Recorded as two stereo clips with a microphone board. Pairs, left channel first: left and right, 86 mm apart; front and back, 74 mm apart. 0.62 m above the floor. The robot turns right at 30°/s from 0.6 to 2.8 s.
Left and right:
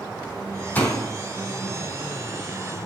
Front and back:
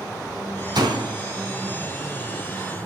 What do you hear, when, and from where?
0.8 s a door slam: 160° left, 4 m; by 1.1 s 170° left, 4 m